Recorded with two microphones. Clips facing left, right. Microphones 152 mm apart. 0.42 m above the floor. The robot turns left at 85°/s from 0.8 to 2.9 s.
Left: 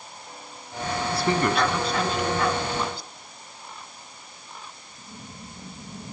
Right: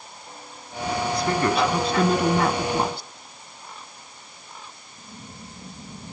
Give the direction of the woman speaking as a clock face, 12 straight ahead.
11 o'clock.